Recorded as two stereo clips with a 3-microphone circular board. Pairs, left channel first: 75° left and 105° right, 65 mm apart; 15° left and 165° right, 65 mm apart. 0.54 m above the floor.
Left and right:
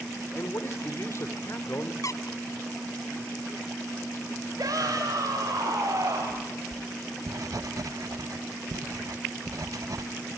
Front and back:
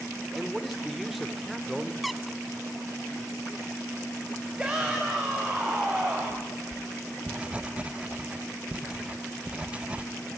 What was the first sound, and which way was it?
A man speaking, 105° left.